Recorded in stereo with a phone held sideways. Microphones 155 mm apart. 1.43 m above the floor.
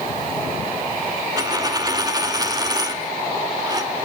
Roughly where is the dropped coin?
Right.